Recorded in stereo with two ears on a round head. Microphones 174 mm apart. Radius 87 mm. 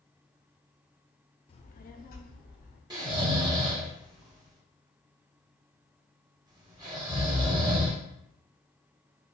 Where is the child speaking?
25° left (ahead or behind), 0.5 m; by 2.8 s 45° left (ahead or behind), 1.3 m.